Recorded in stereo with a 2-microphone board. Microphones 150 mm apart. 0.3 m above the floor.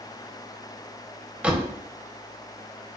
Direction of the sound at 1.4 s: 10° right (ahead or behind).